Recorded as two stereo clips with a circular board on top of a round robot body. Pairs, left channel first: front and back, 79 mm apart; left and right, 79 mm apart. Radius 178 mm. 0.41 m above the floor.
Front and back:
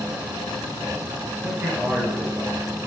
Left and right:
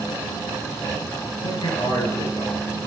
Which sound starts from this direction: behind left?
A man speaking, at 1.4 s.